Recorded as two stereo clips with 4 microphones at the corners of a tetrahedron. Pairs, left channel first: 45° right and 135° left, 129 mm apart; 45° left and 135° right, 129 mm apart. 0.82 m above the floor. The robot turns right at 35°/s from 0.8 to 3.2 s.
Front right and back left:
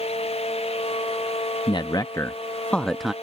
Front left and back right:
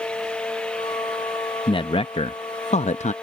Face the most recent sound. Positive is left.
turn(degrees=50)